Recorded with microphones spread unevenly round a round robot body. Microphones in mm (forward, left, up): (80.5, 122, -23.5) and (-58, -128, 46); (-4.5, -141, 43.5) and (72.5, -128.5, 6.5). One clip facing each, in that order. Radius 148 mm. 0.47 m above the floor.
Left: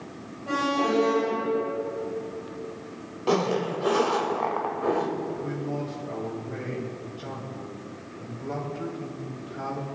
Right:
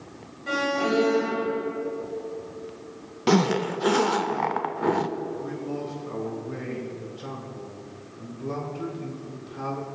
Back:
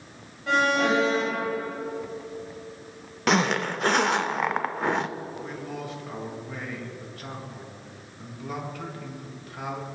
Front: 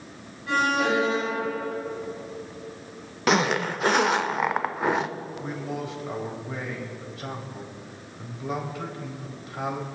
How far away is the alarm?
About 2 m.